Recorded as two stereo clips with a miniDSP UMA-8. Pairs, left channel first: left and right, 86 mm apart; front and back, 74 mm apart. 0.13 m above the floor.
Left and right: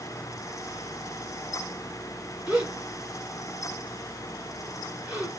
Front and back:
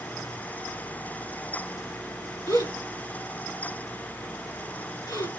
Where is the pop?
I don't hear a pop.